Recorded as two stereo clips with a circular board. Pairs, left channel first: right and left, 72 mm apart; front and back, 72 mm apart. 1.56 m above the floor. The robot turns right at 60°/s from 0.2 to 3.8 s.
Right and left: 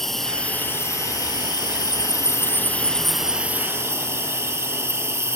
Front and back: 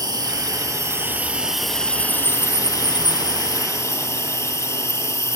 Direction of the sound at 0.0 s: 175° right.